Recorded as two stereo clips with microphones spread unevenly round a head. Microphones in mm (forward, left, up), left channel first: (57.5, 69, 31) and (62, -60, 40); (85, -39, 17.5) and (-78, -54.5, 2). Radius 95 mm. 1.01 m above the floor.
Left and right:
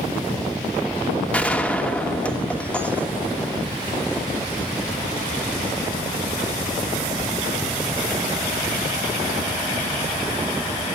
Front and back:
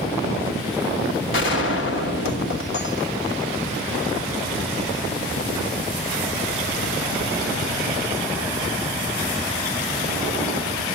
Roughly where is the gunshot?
Ahead.